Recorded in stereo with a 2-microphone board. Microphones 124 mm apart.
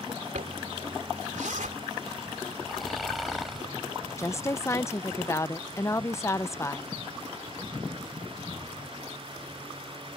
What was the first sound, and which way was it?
A zipper, 80° right.